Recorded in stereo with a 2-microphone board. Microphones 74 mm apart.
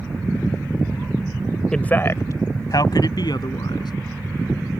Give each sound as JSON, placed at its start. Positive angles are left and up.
{"t": 1.7, "sound": "a man speaking", "side_deg": 10}